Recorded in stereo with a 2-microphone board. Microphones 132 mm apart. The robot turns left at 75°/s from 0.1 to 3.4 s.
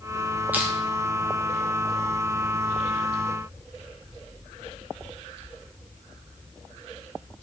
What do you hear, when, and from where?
0.5 s crushing: 15° right (ahead or behind), 0.9 m; by 0.7 s 5° right (ahead or behind), 0.9 m